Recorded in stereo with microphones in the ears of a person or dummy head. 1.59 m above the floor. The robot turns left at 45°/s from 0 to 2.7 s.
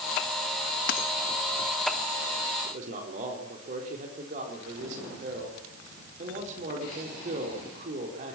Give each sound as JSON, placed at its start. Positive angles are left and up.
{"t": 0.9, "sound": "a dropped coin", "side_deg": 60, "distance_m": 1.6}
{"t": 2.6, "sound": "a man speaking", "side_deg": -45, "distance_m": 4.5}